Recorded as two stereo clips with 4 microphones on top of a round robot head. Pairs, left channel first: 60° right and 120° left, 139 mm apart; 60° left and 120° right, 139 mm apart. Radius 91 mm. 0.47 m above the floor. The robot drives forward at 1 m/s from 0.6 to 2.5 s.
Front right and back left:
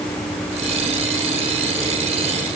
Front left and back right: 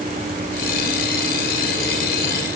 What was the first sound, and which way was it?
Only background noise.